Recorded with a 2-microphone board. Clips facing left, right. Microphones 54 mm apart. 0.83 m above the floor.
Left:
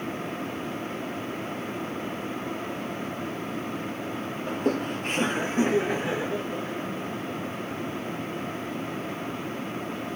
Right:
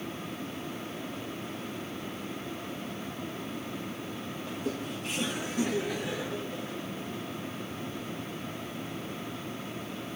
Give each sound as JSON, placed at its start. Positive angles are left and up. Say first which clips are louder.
{"t": 4.5, "sound": "laughter", "louder": "left 9 dB", "side_deg": 40, "distance_m": 0.5}